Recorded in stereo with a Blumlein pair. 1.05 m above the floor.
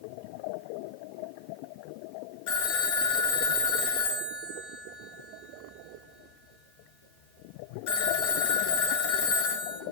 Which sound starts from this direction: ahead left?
A phone ringing, at 2.5 s.